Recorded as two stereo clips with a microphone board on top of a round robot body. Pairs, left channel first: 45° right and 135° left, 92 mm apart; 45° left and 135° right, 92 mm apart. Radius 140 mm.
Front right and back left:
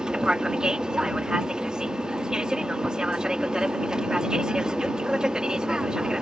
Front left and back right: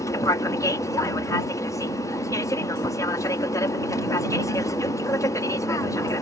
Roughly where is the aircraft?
Ahead left.